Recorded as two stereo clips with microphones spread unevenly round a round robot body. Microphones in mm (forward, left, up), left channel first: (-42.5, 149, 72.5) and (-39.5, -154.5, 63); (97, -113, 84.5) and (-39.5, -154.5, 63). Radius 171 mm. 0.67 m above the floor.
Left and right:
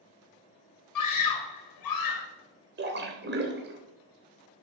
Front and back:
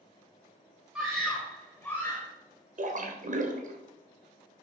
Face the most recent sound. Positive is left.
turn(degrees=-145)